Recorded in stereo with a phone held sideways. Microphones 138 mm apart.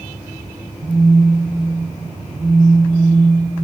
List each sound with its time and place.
0.8 s a phone buzzing: 50° right (ahead or behind), 2 m